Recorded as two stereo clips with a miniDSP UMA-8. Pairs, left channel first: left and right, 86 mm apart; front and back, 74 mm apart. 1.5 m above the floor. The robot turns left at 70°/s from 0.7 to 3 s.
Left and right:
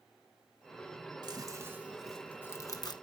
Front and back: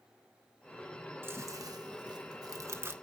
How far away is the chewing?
About 1.1 m.